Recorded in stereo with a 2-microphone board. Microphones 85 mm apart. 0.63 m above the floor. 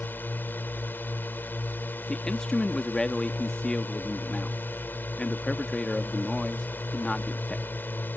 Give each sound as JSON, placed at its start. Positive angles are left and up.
{"t": 0.0, "sound": "a drone", "side_deg": 25}
{"t": 2.1, "sound": "a man speaking", "side_deg": 10}